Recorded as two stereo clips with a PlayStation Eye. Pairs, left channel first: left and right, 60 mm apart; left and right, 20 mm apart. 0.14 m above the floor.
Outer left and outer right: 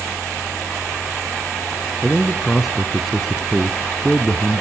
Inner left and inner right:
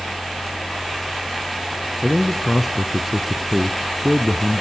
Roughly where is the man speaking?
Centre.